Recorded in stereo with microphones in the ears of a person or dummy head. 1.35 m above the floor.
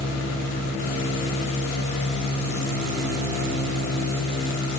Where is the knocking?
No knocking in this recording.